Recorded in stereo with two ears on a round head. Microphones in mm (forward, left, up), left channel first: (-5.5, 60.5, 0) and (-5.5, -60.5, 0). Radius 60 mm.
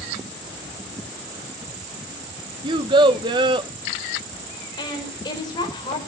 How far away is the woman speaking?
About 5 m.